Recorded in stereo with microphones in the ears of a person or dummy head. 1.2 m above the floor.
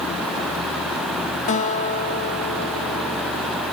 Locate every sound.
1.5 s a guitar: 35° left (ahead or behind)